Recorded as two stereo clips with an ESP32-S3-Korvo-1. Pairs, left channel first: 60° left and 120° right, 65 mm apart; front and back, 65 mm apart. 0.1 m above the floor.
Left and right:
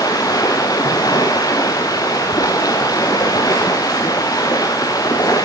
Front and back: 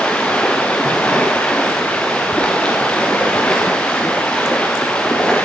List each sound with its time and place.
0.0 s running water: 75° left, 3.5 m